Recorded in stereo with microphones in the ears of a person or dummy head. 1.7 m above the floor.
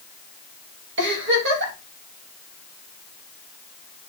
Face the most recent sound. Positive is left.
turn(degrees=-65)  # may be behind; listen again after turning